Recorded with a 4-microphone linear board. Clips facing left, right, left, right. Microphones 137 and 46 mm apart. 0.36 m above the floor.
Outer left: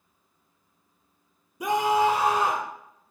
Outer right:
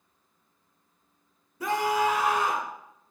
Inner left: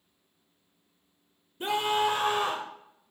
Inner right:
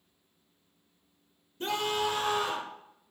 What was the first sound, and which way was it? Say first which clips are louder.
A scream: outer left 3 dB, inner left 4 dB; 15° left (ahead or behind).